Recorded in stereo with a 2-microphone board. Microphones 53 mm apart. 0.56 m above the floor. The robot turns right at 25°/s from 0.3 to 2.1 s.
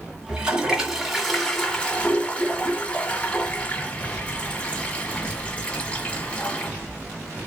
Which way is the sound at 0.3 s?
15° right.